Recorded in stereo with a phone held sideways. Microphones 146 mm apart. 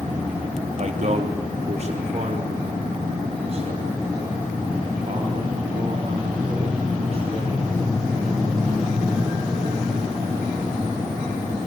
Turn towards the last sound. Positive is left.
turn(degrees=-45)  # may be behind; listen again after turning